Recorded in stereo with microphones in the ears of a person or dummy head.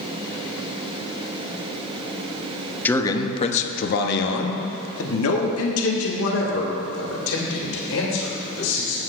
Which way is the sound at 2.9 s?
10° left (ahead or behind).